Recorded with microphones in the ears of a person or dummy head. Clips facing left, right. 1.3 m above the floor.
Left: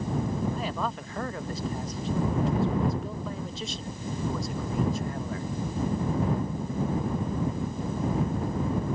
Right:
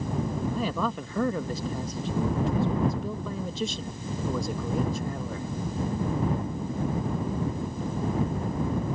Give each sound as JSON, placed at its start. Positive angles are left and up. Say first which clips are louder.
{"t": 0.5, "sound": "a man speaking", "louder": "right 3 dB", "side_deg": -75}